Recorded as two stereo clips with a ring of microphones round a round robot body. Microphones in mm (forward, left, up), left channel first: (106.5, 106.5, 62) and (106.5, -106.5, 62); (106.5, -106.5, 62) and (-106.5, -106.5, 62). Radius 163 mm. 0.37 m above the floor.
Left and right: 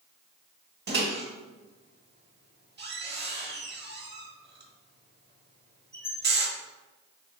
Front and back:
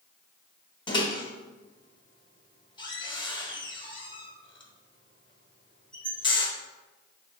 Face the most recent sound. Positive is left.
turn(degrees=-65)